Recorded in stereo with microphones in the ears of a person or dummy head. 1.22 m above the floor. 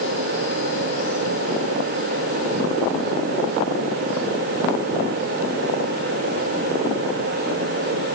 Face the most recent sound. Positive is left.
No sound to turn to.